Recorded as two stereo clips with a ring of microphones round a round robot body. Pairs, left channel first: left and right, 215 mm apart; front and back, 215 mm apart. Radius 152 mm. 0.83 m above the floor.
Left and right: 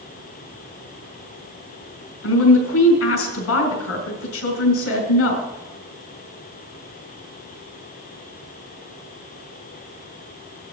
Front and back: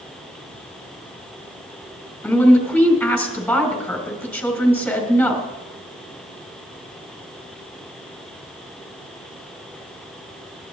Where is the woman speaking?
85° left, 4 m.